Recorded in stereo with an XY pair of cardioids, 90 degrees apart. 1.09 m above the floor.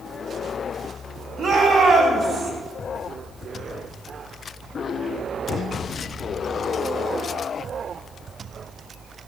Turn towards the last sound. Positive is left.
turn(degrees=-50)